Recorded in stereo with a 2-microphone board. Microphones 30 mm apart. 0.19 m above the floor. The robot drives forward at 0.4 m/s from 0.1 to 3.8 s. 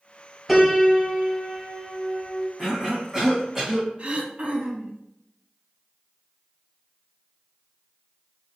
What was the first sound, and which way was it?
A piano, centre (ahead or behind).